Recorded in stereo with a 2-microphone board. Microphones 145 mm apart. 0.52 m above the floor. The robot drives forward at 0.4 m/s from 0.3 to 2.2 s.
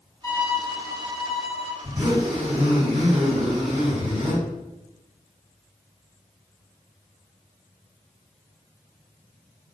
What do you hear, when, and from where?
0.2 s a violin: 20° left (ahead or behind), 0.8 m; by 1.7 s 10° left (ahead or behind), 1.3 m
1.8 s a zipper: 45° right (ahead or behind), 1.8 m; by 4.4 s 40° right (ahead or behind), 1.9 m